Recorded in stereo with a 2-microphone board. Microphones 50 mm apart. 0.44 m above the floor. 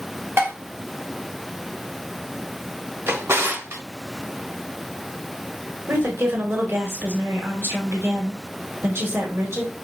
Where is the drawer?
65° right (ahead or behind), 1.1 m.